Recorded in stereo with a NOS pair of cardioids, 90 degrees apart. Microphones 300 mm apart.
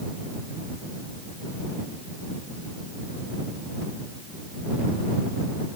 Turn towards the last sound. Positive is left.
No sound to turn to.